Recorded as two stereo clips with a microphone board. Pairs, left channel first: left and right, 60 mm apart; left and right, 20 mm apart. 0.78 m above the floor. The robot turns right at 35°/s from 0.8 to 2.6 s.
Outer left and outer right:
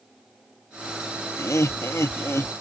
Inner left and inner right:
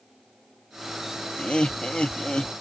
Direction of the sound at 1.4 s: 75° left.